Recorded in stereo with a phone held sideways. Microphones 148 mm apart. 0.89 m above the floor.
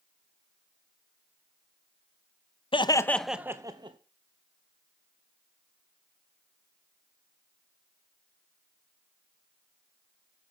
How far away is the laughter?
About 0.5 m.